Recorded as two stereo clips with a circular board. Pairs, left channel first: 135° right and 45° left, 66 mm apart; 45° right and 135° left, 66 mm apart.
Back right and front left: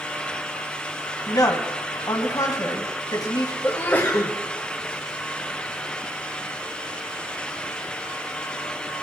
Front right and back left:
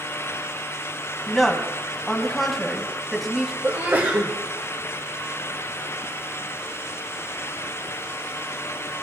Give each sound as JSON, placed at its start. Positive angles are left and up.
{"t": 1.3, "sound": "a woman speaking", "azimuth_deg": -135, "distance_m": 2.5}
{"t": 3.6, "sound": "a sneeze", "azimuth_deg": 180, "distance_m": 1.6}